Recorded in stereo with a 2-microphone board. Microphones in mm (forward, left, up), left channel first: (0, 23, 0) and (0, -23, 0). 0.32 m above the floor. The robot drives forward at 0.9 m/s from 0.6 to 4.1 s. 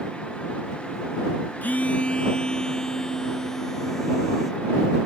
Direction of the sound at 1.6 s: 40° left (ahead or behind).